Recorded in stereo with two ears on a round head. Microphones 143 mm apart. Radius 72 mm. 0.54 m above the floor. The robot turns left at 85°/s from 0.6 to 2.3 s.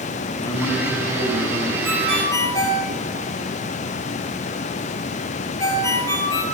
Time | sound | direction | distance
0.4 | a man speaking | 20° left | 5 m
1.8 | a ringtone | 20° right (ahead or behind) | 7 m